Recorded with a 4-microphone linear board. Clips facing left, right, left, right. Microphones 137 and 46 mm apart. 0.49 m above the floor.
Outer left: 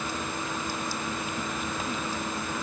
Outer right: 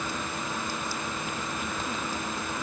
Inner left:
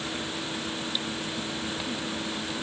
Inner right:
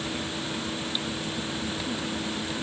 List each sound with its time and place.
Only background noise.